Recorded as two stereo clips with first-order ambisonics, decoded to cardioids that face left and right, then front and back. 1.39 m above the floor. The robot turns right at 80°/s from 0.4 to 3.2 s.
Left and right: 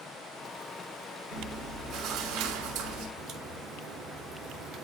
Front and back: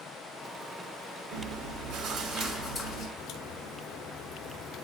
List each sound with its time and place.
1.3 s chewing: 155° left, 5.5 m; by 3.1 s 65° right, 5.5 m
3.2 s a crack: 55° right, 3.5 m